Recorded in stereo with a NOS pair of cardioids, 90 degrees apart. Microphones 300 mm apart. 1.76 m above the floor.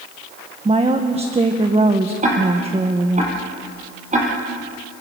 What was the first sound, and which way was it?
A woman speaking, 20° right.